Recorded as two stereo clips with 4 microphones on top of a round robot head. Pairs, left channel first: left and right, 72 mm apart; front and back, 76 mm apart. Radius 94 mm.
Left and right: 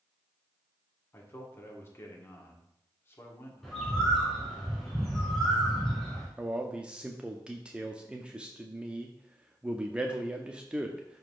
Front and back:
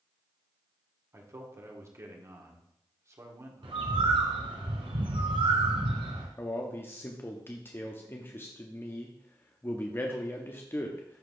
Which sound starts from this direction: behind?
A bird, at 3.6 s.